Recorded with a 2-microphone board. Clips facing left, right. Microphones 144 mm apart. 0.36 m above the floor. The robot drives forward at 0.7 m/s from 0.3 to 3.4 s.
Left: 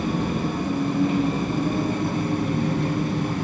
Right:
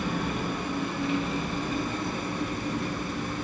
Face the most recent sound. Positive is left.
turn(degrees=70)  # may be behind; listen again after turning